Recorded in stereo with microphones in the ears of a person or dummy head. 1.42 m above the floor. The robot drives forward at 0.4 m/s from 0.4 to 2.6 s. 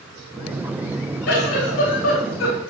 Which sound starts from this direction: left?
A giggle, at 1.3 s.